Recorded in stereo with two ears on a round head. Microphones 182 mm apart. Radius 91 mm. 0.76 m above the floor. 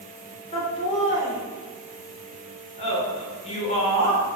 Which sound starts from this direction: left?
Laughter, at 0.5 s.